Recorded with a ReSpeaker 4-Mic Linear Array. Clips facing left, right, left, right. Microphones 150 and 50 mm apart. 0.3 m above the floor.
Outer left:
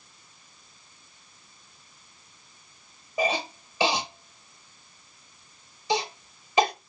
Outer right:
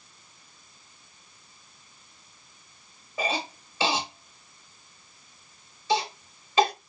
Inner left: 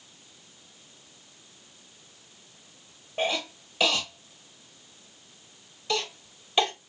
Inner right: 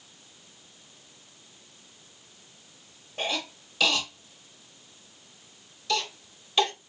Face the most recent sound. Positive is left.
turn(degrees=20)  # may be behind; listen again after turning